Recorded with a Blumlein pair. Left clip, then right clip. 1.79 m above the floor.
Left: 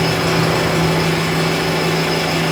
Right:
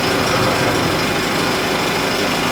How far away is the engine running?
About 1.4 m.